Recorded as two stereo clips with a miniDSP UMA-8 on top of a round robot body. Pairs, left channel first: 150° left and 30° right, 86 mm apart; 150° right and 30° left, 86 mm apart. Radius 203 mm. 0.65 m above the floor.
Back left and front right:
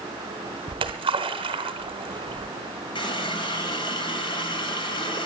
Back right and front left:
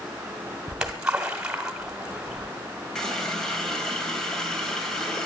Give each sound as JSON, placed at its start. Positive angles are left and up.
{"t": 0.7, "sound": "a splash", "azimuth_deg": -50, "distance_m": 0.9}
{"t": 3.0, "sound": "a running tap", "azimuth_deg": 125, "distance_m": 3.0}